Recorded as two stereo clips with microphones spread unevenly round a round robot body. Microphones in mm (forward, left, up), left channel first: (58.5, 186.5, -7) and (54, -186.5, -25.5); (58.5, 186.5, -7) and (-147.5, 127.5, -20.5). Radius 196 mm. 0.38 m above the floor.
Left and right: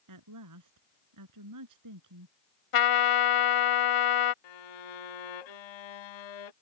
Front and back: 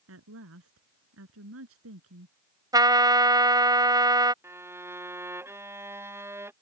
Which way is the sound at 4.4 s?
115° left.